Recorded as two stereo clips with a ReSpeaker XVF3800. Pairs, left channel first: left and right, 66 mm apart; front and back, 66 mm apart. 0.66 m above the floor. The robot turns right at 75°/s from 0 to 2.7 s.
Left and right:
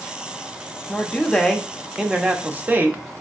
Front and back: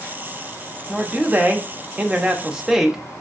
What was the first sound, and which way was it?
A man speaking, 120° left.